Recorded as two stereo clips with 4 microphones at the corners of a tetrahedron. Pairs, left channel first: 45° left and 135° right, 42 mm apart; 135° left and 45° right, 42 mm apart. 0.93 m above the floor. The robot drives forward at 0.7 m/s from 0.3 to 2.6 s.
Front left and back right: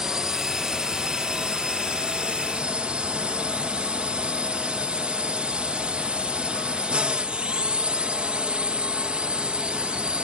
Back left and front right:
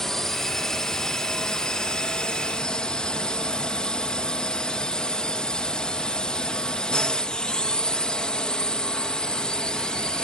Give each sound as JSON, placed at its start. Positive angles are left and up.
{"t": 0.0, "sound": "a drone", "azimuth_deg": -170}